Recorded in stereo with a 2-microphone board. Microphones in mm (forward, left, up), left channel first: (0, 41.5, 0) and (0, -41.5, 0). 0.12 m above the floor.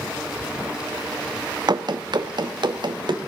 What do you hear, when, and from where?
1.7 s running footsteps: 55° right (ahead or behind), 0.9 m; by 3.2 s 60° right (ahead or behind), 1.8 m